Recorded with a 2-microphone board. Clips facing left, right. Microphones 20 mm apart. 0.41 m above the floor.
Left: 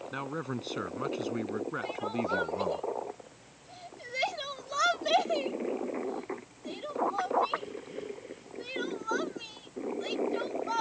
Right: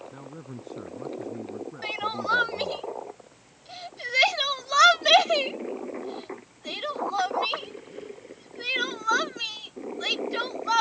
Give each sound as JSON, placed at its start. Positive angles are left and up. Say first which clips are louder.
{"t": 0.1, "sound": "a man speaking", "louder": "left 6 dB", "side_deg": 75}
{"t": 1.8, "sound": "crying", "louder": "right 5 dB", "side_deg": -50}